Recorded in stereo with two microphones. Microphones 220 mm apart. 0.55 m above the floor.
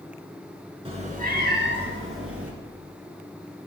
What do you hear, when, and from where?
0.8 s a cat meowing: 25° right (ahead or behind), 1.4 m; by 2.5 s 80° right, 1.8 m